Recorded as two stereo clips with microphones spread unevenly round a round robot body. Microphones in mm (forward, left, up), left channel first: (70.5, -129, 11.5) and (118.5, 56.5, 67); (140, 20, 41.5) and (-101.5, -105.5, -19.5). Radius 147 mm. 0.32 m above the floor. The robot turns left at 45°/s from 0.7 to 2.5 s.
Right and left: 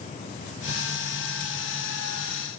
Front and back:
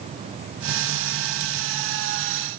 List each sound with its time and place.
Only background noise.